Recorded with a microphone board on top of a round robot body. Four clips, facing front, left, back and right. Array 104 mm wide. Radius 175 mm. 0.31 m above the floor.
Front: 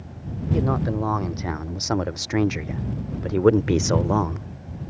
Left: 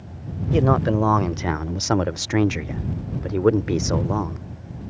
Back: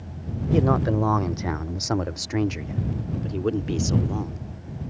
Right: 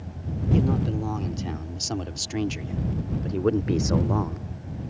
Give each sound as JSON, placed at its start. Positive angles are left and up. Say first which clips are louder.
{"t": 0.5, "sound": "a man speaking", "louder": "left 6 dB, back 3 dB", "azimuth_deg": 105}